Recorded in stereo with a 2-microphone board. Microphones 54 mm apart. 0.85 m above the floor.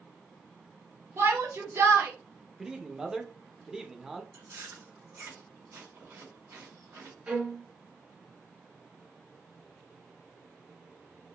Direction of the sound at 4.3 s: 60° right (ahead or behind).